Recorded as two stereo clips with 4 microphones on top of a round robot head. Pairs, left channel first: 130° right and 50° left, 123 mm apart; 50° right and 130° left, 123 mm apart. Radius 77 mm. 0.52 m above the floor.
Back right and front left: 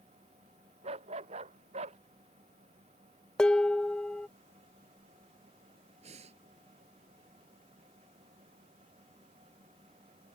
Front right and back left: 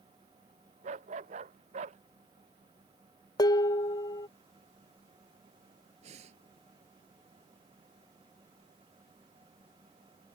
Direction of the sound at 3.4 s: 50° right.